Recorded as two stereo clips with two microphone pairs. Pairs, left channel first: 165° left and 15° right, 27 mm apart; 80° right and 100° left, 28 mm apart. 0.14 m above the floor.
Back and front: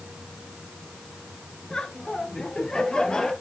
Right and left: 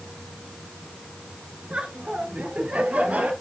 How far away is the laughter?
About 1.5 m.